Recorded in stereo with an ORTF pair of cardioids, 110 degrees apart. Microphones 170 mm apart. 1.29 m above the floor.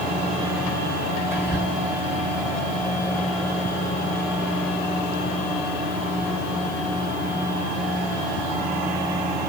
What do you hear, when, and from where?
1.3 s whispering: 15° right, 1.1 m